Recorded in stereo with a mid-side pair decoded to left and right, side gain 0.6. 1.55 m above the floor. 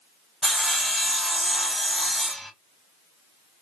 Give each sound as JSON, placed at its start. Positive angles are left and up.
{"t": 0.4, "sound": "sawing", "azimuth_deg": 0, "distance_m": 0.8}